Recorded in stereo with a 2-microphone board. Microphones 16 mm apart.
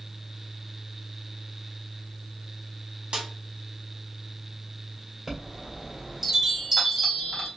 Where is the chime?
20° right (ahead or behind), 1.8 m.